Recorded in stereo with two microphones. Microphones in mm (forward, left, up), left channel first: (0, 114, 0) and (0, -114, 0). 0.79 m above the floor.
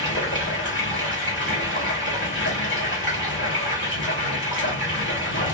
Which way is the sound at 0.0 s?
50° left (ahead or behind).